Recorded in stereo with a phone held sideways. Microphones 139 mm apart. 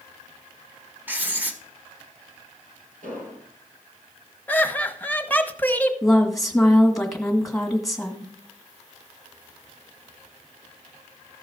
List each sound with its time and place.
1.1 s writing: 10° right (ahead or behind), 1.1 m
3.0 s an explosion: 75° right (ahead or behind), 4 m
4.5 s laughter: 10° left (ahead or behind), 1.0 m
6.0 s a woman speaking: centre (ahead or behind), 1.8 m